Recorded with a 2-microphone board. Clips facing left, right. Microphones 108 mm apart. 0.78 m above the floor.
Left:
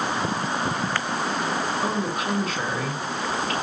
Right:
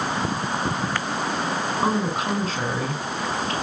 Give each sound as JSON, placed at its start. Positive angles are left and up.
{"t": 1.8, "sound": "a woman speaking", "side_deg": -30, "distance_m": 6.5}